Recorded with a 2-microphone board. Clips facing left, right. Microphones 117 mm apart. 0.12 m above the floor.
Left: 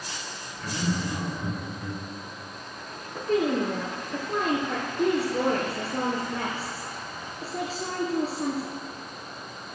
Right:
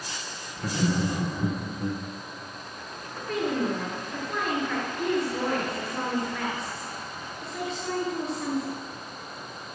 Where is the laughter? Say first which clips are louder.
Right 3 dB; 40° right (ahead or behind), 3 m.